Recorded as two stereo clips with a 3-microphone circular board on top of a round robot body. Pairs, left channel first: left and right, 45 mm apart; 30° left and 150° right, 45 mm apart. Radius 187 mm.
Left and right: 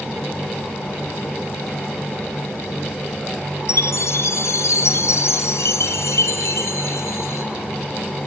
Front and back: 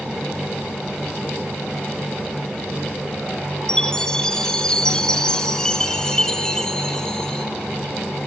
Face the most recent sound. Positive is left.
turn(degrees=105)